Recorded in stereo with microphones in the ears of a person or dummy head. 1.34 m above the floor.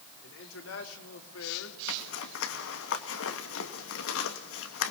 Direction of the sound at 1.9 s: 75° left (ahead or behind).